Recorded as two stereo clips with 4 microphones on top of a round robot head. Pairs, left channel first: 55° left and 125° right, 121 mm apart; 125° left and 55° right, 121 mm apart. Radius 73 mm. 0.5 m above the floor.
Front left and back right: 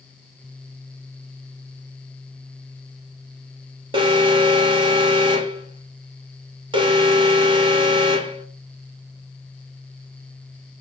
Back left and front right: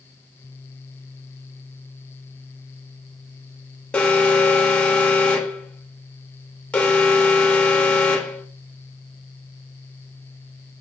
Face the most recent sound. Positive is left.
turn(degrees=-160)